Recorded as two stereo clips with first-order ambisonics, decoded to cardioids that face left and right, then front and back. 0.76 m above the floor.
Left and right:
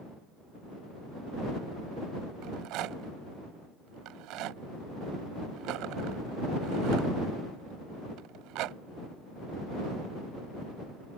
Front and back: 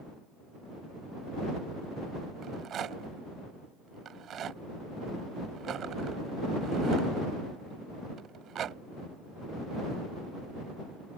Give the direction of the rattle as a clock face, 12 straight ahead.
4 o'clock.